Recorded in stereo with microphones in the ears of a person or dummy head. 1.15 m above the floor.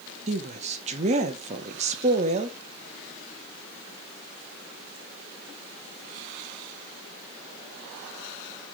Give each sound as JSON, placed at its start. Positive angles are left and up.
{"t": 0.3, "sound": "a woman speaking", "side_deg": -35, "distance_m": 1.1}